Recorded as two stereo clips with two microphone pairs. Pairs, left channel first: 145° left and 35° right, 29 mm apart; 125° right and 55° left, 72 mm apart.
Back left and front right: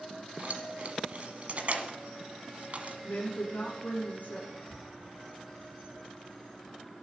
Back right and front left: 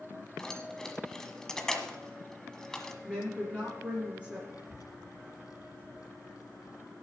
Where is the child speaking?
125° right, 1.1 m.